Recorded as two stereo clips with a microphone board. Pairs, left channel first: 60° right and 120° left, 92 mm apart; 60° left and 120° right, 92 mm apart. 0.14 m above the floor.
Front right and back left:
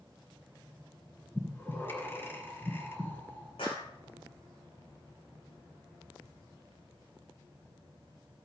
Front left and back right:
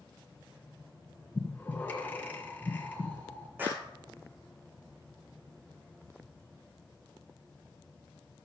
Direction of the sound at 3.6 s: 50° right.